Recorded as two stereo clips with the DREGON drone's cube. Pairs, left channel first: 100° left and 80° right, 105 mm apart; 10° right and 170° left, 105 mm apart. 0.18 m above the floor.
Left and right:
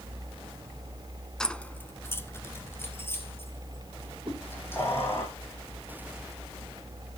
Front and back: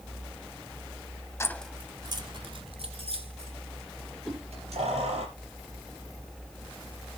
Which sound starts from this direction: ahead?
Keys jangling, at 1.4 s.